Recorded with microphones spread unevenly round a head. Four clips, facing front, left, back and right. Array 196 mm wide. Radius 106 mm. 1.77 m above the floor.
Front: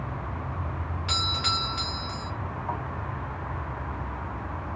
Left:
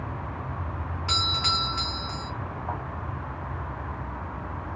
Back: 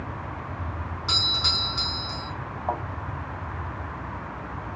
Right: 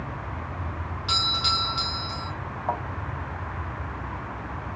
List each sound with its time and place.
1.1 s a doorbell: 135° left, 2 m
2.7 s a thud: 145° right, 5 m